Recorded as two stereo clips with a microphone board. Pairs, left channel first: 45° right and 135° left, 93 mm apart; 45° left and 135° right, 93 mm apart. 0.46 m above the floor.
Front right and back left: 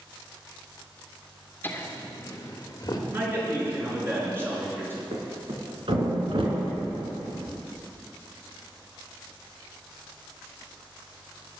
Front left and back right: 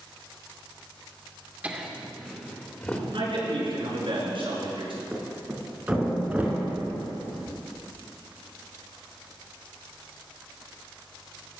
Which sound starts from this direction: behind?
A man speaking, at 3.1 s.